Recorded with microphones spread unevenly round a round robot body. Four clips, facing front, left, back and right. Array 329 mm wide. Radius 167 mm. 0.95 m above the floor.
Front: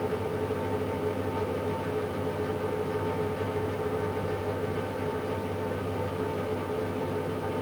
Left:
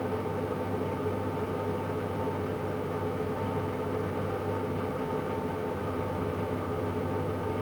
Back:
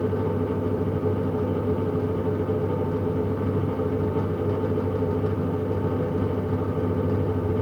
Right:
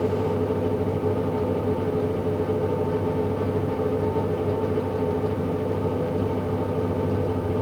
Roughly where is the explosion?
No explosion in this recording.